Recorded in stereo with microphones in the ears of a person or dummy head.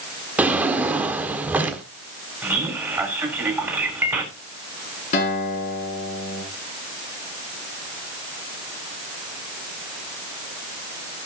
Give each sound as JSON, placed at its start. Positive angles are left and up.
{"t": 0.4, "sound": "a drawer", "side_deg": -5, "distance_m": 1.3}
{"t": 2.4, "sound": "a man speaking", "side_deg": -10, "distance_m": 3.5}
{"t": 5.1, "sound": "a guitar", "side_deg": 40, "distance_m": 9.5}